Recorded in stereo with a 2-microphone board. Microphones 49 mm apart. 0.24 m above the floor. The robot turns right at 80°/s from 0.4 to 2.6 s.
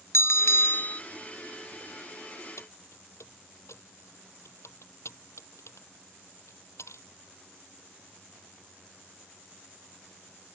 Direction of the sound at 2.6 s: 80° left.